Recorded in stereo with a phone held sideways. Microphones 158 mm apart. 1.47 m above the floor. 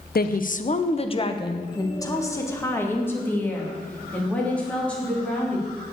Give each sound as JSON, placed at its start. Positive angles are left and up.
{"t": 0.1, "sound": "a woman speaking", "side_deg": 75, "distance_m": 0.6}